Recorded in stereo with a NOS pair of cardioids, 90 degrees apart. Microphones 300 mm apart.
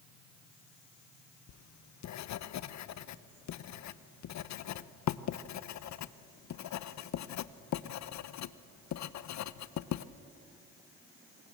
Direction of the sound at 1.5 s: 65° left.